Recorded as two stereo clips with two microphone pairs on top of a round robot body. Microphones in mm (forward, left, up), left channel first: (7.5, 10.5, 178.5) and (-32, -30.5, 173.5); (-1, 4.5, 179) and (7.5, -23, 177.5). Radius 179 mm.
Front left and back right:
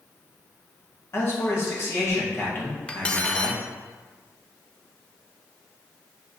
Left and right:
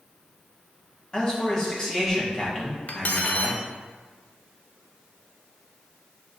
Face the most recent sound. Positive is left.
turn(degrees=115)